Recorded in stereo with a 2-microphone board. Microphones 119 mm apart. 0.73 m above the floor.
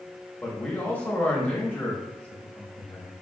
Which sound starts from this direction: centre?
A man speaking, at 0.4 s.